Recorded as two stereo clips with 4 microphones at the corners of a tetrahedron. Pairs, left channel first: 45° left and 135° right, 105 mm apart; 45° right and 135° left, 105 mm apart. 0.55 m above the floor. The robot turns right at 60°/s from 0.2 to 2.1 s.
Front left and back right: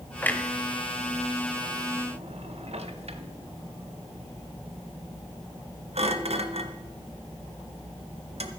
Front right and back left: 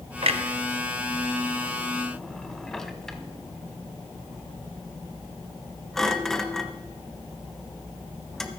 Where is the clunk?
115° left, 1.0 m; by 8.5 s 130° right, 1.0 m.